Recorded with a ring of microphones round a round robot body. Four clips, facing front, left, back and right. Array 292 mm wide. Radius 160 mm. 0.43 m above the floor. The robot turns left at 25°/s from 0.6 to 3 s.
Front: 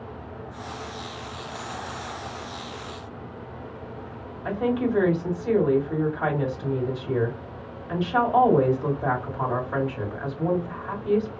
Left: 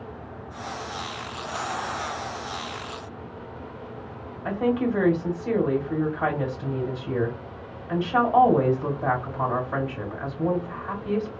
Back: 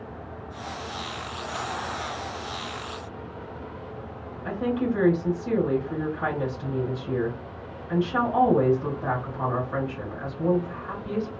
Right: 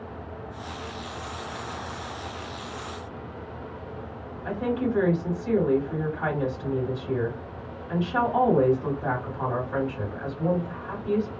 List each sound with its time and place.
4.5 s a woman speaking: 50° left, 2 m